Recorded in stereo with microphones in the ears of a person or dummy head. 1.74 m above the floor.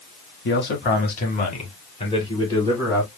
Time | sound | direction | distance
0.5 | a man speaking | 65° left (ahead or behind) | 2 m